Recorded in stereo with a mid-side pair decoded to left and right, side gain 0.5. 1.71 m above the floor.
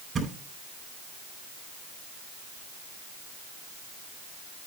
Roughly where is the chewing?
I don't hear chewing.